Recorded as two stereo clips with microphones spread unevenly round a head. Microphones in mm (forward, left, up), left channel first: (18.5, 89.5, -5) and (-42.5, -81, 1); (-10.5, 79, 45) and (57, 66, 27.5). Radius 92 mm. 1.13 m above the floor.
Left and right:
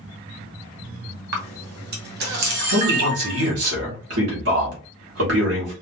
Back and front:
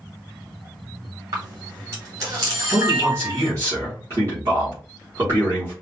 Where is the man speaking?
75° right, 3.5 m.